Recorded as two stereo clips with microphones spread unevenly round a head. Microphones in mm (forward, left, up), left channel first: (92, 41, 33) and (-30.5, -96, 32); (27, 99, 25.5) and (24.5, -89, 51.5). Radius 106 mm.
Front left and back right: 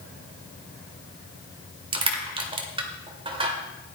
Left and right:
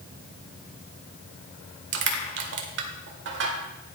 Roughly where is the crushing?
Right.